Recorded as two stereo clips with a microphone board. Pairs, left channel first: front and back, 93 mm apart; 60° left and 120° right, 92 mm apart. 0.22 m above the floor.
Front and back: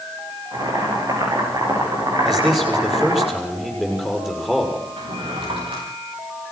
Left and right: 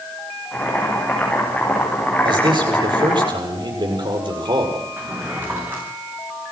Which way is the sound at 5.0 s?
170° left.